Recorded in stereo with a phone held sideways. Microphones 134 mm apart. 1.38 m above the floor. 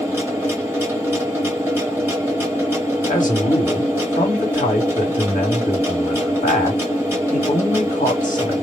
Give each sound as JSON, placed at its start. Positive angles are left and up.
{"t": 0.0, "sound": "a machine running", "side_deg": -15, "distance_m": 1.2}
{"t": 3.1, "sound": "a man speaking", "side_deg": 75, "distance_m": 1.4}